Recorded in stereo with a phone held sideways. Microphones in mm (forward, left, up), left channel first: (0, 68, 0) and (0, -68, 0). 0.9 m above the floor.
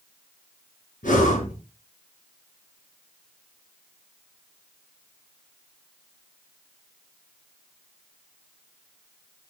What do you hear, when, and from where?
1.0 s breathing: 75° left (ahead or behind), 4.5 m